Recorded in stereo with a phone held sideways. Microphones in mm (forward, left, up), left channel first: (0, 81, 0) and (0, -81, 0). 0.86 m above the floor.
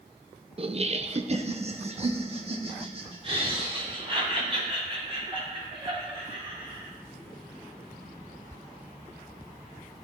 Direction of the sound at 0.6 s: 35° right (ahead or behind).